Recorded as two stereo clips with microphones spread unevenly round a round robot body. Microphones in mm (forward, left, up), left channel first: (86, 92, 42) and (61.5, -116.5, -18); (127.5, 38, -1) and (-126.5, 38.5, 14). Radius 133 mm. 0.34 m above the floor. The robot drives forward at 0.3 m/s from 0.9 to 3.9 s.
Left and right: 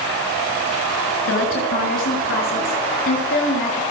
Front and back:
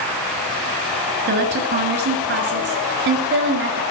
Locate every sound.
1.3 s a woman speaking: 130° left, 5 m; by 3.8 s 135° left, 5.5 m